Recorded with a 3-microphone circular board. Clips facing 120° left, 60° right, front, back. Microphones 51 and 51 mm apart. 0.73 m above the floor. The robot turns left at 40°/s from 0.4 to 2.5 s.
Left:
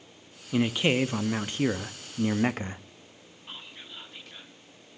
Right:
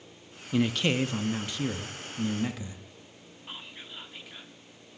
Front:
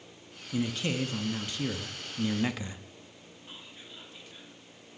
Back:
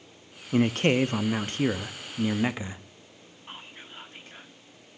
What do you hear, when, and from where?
0.5 s a man speaking: 165° right, 0.6 m; by 2.8 s 120° left, 0.6 m
3.5 s whispering: 140° right, 1.8 m